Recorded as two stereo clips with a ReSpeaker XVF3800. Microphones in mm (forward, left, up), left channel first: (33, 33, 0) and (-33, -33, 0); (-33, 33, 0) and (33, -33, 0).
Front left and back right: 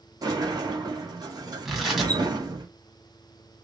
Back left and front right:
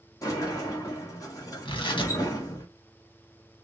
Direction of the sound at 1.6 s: 140° left.